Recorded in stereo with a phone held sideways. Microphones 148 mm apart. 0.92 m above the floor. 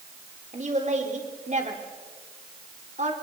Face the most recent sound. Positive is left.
turn(degrees=-55)  # may be behind; listen again after turning